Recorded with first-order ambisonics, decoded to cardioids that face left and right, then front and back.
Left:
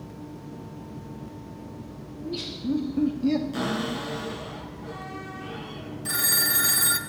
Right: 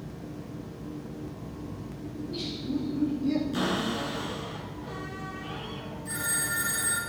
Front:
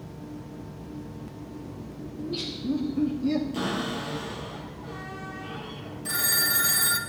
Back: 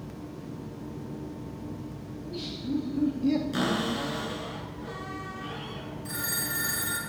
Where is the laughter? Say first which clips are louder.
Left 2 dB, front 5 dB; 45° left, 1.4 m; by 3.4 s 115° left, 0.9 m.